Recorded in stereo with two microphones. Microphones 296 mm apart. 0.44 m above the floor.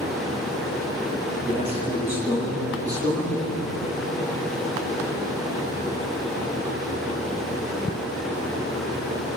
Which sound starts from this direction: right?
A man speaking, at 1.5 s.